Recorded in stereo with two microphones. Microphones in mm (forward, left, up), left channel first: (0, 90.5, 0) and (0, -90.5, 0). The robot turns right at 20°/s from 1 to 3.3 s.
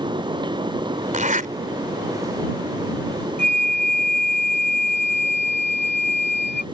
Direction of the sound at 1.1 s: 45° right (ahead or behind).